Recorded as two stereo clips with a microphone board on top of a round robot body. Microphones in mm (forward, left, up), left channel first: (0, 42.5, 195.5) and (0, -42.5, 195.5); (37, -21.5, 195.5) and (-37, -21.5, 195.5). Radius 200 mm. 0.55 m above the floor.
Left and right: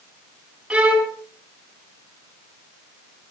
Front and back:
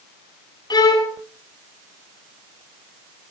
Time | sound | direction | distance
0.7 | a violin | 10° right | 4 m